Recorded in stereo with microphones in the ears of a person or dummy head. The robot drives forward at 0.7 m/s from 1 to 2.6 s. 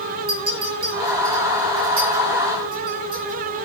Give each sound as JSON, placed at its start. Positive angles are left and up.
{"t": 0.3, "sound": "a clink", "side_deg": -55, "distance_m": 0.9}